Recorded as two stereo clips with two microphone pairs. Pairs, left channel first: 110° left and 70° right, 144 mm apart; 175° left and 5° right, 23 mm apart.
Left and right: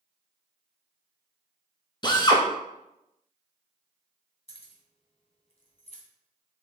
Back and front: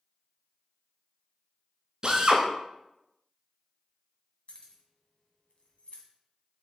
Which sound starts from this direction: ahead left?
A drill, at 2.0 s.